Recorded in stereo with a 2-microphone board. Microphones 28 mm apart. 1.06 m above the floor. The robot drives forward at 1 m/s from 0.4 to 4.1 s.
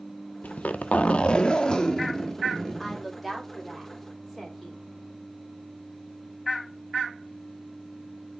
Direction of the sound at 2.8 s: 5° left (ahead or behind).